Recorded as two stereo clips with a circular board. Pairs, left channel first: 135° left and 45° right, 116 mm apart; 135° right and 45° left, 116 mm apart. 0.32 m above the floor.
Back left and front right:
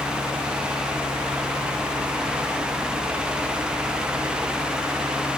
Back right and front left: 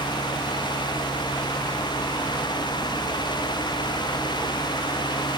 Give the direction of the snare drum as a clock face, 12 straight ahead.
No snare drum in this recording.